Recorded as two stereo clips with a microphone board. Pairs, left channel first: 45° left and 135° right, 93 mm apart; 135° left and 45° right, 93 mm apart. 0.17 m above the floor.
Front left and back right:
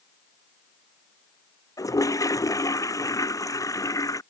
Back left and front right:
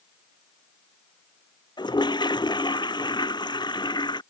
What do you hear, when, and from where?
1.8 s a toilet flushing: 95° left